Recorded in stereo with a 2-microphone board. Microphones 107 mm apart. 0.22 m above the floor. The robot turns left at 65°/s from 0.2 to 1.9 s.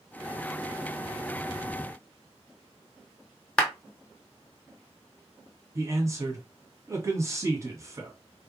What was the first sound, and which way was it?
A clap, 10° left (ahead or behind).